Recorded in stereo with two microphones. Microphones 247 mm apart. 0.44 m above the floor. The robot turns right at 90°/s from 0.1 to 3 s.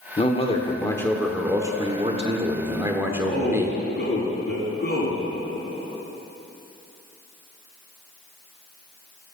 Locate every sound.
0.2 s a man speaking: 25° left (ahead or behind), 1.1 m; by 3.8 s 10° right (ahead or behind), 1.1 m
3.1 s a man speaking: 45° left (ahead or behind), 4 m